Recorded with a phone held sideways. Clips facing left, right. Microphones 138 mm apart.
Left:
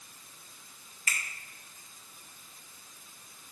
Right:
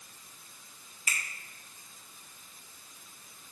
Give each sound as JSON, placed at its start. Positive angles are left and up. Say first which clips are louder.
{"t": 1.1, "sound": "a finger snap", "louder": "even", "side_deg": -15, "distance_m": 1.7}